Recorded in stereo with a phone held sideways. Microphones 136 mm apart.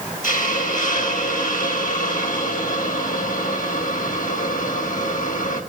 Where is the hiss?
80° left, 5.5 m.